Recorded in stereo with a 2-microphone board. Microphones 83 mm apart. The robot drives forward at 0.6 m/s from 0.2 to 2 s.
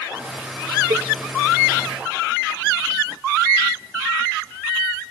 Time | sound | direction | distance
0.9 | a cowbell | 60° right (ahead or behind) | 1.8 m